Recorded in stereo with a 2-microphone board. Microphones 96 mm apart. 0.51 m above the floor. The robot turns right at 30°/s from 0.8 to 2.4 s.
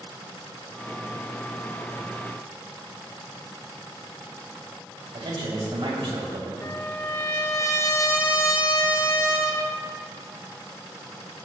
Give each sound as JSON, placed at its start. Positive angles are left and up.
{"t": 5.1, "sound": "a man speaking", "side_deg": -65, "distance_m": 2.5}
{"t": 6.6, "sound": "a trumpet", "side_deg": 30, "distance_m": 1.0}